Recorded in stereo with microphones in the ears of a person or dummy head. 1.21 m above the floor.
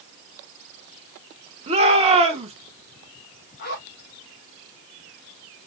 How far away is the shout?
About 1.2 m.